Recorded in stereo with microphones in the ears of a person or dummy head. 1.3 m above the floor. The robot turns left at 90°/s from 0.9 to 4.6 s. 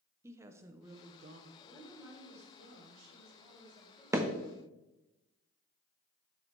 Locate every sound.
0.2 s a woman speaking: 20° right, 0.7 m; by 1.5 s 70° right, 0.7 m
1.6 s a woman speaking: 30° left, 2 m; by 4.0 s 170° left, 2 m
4.1 s hammering: 15° right (ahead or behind), 0.6 m; by 4.3 s centre (ahead or behind), 0.6 m